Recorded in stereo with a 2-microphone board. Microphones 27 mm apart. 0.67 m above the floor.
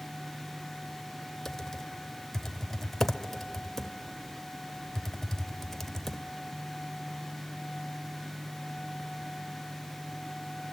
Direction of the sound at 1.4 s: 5° left (ahead or behind).